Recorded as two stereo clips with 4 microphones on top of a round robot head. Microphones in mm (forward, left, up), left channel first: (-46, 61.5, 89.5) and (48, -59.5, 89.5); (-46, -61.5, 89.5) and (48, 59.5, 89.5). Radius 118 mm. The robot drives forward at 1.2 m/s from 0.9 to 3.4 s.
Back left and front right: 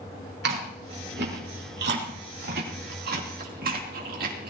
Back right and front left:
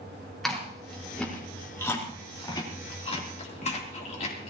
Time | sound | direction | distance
0.4 | chewing | 40° right | 4.5 m